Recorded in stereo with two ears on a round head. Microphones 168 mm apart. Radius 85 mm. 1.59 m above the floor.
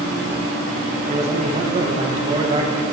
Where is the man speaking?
35° right (ahead or behind), 1.3 m.